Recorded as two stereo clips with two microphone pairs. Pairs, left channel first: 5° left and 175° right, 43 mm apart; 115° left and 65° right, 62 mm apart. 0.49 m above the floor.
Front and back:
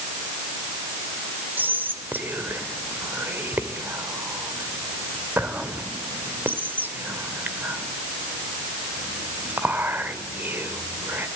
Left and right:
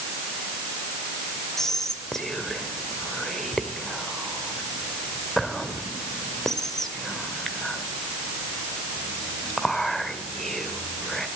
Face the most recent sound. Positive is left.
turn(degrees=-160)